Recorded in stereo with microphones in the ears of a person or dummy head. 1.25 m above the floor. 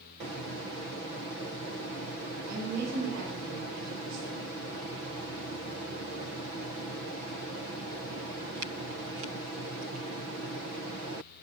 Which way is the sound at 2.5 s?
65° right (ahead or behind).